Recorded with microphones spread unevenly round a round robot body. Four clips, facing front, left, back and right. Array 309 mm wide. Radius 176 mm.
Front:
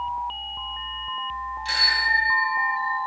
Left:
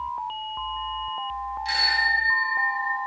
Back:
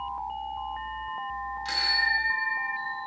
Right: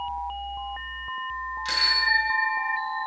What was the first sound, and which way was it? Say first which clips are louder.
A bicycle bell: left 2 dB, front 4 dB; 120° right.